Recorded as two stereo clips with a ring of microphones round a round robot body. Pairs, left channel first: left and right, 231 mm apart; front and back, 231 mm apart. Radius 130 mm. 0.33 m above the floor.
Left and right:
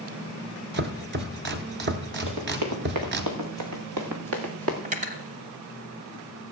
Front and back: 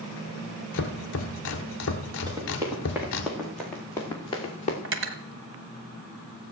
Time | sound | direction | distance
0.7 | chopping | 45° right | 1.0 m
2.3 | running footsteps | 105° right | 3 m
4.8 | cutlery clinking | 150° right | 0.9 m